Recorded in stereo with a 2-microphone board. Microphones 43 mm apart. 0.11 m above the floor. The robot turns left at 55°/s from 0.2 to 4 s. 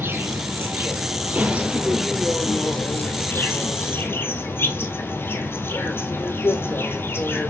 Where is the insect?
75° right, 1.2 m; by 7.5 s 75° left, 1.2 m.